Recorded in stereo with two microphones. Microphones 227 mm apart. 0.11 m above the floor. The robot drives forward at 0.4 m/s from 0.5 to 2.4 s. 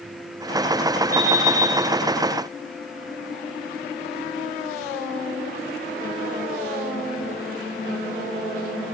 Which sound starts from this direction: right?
An alarm clock, at 1.1 s.